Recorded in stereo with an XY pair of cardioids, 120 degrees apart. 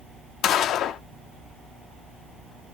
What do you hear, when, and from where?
0.4 s a gunshot: 65° left, 0.9 m